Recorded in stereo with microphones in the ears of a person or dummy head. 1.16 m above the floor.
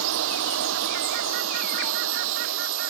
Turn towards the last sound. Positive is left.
turn(degrees=-75)  # may be behind; listen again after turning